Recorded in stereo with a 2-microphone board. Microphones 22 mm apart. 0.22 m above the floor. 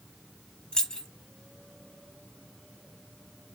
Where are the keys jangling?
35° left (ahead or behind), 1.1 m.